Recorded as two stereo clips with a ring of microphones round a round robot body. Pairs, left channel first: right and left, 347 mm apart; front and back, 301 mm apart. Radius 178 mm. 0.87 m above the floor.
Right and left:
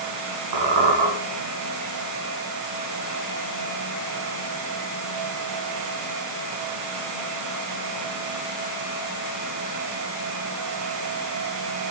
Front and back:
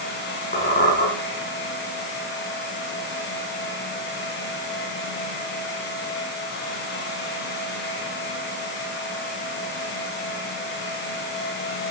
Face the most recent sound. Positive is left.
turn(degrees=60)